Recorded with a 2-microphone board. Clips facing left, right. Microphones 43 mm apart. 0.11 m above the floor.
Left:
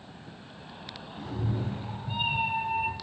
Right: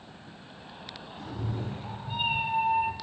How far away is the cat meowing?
About 0.9 m.